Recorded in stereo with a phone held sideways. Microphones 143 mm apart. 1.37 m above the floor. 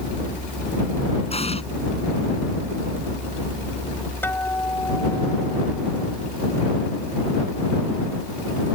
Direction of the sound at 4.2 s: 15° left (ahead or behind).